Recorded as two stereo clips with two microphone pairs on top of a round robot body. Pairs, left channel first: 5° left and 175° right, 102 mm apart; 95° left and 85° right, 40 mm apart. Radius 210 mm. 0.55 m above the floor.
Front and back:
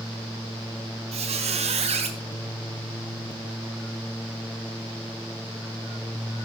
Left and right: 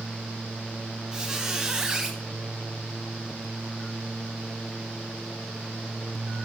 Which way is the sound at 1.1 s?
165° right.